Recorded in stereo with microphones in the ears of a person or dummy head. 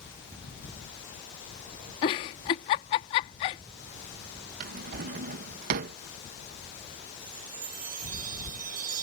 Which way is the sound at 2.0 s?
25° left (ahead or behind).